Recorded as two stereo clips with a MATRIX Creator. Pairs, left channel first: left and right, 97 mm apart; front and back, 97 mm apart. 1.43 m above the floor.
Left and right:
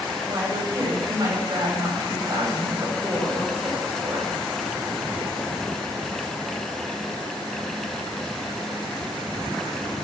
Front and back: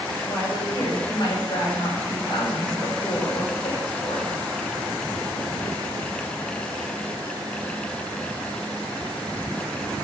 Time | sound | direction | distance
0.2 | a woman speaking | 40° right | 6 m